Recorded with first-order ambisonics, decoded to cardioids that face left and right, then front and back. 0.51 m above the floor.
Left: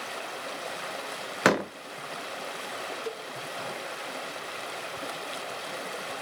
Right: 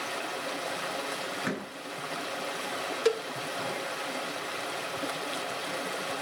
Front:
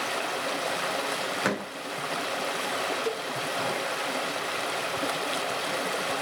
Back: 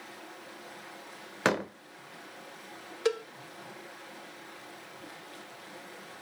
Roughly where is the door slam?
Left.